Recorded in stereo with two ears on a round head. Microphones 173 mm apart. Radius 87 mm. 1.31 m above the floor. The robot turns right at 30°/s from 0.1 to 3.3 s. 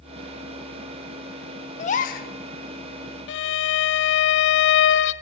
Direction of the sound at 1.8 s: 35° left (ahead or behind).